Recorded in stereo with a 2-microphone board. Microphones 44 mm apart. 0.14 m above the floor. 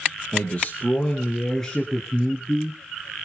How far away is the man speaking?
About 2.5 m.